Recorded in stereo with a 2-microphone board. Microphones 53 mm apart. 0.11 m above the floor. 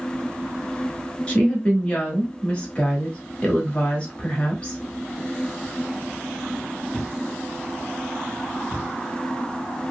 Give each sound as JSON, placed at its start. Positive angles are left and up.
{"t": 1.3, "sound": "a woman speaking", "side_deg": 20, "distance_m": 1.1}